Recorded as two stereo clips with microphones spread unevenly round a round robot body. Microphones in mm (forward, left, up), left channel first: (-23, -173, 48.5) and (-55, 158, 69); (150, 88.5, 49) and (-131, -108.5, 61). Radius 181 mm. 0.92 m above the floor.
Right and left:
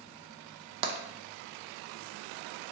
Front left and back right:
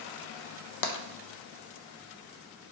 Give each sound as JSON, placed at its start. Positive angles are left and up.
{"t": 0.8, "sound": "tapping", "azimuth_deg": 65, "distance_m": 0.6}